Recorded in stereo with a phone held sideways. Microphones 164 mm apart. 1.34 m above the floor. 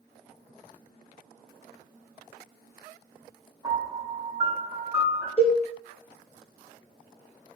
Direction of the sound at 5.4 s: 45° left (ahead or behind).